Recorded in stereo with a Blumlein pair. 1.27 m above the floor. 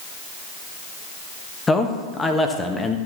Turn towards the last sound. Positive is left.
turn(degrees=10)